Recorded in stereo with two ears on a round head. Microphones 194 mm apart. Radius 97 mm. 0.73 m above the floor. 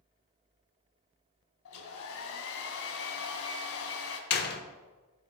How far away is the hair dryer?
About 1.8 m.